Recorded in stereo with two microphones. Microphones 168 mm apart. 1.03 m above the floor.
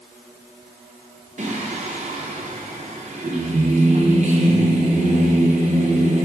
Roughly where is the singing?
Right.